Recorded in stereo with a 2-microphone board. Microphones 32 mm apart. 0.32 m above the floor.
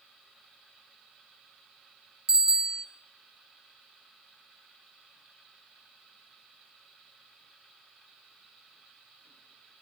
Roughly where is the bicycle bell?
Centre.